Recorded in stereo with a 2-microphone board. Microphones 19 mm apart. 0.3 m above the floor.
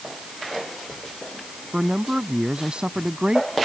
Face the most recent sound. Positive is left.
turn(degrees=-55)  # may be behind; listen again after turning